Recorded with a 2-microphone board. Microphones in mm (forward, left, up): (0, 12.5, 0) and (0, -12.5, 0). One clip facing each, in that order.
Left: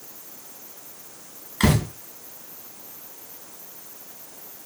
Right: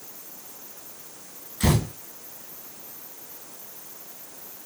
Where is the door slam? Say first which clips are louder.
Left 3 dB; 60° left (ahead or behind), 8.5 m.